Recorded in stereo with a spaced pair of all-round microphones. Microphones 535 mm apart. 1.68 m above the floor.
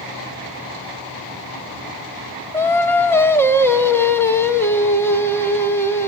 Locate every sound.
2.5 s singing: 5° left (ahead or behind), 1.3 m